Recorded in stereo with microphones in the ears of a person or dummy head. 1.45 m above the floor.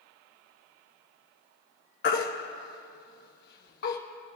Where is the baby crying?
55° left (ahead or behind), 1.1 m.